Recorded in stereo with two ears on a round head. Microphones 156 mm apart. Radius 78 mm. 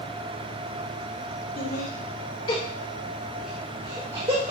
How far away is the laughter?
About 1.4 m.